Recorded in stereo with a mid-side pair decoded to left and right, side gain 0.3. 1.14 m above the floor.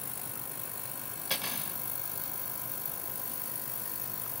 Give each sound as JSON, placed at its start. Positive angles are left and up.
{"t": 1.3, "sound": "cutlery clinking", "azimuth_deg": 5, "distance_m": 2.5}